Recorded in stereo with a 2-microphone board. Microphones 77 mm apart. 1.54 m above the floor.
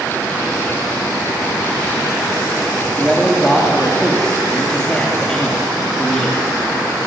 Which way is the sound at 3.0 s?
10° left (ahead or behind).